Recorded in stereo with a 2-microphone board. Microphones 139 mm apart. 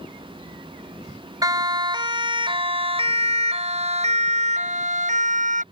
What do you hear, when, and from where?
1.4 s a siren: 25° right (ahead or behind); by 5.6 s 65° right (ahead or behind)